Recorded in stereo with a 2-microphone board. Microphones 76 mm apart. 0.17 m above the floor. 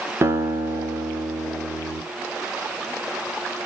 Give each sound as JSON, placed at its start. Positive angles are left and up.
{"t": 0.2, "sound": "a guitar", "side_deg": -35, "distance_m": 1.2}